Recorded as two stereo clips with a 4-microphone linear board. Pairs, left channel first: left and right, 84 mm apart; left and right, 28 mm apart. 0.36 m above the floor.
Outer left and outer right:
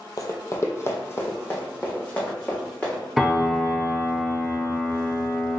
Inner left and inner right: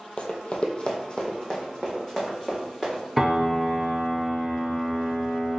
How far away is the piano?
About 0.6 m.